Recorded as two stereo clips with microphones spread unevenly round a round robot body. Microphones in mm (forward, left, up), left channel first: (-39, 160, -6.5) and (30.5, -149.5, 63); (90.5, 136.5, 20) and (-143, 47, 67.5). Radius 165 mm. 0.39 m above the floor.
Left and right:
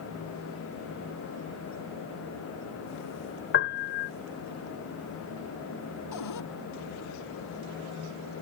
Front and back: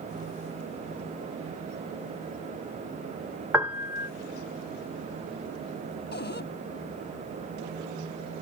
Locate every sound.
3.5 s a piano: 110° left
6.1 s a cupboard door: 70° left